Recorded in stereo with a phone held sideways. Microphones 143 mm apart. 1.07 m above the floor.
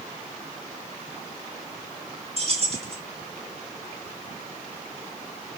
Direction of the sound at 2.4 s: 45° right (ahead or behind).